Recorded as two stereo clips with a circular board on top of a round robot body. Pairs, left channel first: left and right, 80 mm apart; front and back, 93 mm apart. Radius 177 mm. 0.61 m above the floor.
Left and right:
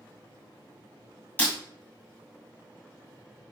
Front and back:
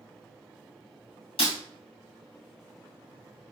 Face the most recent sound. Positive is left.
turn(degrees=25)